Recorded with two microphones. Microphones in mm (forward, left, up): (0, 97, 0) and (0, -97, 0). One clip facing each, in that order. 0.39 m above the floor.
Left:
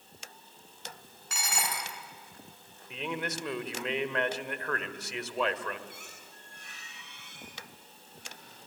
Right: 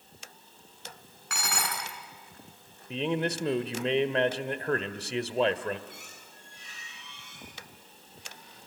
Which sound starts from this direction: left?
A squeak, at 5.9 s.